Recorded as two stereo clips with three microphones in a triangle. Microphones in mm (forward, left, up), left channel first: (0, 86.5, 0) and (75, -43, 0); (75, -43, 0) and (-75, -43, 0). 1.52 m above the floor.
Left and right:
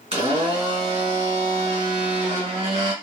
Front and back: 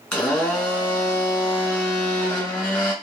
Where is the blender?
75° right, 1.8 m.